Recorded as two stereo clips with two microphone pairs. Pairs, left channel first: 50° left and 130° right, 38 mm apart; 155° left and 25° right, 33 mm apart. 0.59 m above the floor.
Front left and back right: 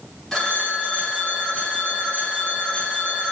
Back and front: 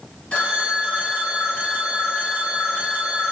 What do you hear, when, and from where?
0.3 s a phone ringing: 120° left, 1.1 m